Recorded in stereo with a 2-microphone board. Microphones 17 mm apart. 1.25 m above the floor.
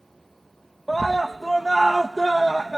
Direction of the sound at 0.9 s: 5° left (ahead or behind).